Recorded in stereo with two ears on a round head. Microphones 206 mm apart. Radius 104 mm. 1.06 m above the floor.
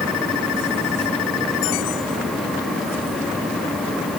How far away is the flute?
I don't hear a flute.